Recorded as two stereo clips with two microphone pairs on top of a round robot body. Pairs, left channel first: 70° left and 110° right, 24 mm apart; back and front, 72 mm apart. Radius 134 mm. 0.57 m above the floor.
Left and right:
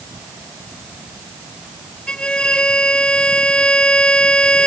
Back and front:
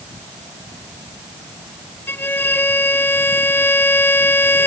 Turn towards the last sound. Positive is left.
turn(degrees=120)